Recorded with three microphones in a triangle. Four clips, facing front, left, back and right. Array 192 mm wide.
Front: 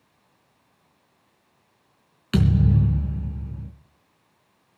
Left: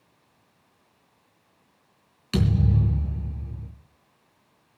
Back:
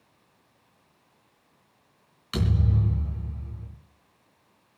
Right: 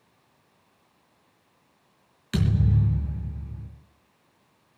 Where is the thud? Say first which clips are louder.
Left 1 dB, front 7 dB; 5° left, 3.5 m.